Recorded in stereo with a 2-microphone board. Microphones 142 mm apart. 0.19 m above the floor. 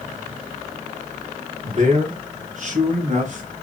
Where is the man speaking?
55° right (ahead or behind), 2 m; by 3.5 s 60° right (ahead or behind), 2 m.